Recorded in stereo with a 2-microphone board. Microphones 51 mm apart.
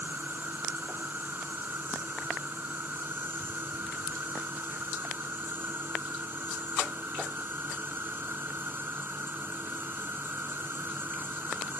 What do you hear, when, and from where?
0.0 s an insect: 45° right (ahead or behind)